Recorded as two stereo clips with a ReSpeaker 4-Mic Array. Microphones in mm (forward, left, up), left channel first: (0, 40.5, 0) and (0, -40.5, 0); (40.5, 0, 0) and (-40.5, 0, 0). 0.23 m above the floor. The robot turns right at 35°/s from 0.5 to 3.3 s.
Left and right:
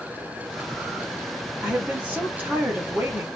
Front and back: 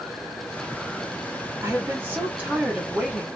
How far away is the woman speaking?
About 1.5 m.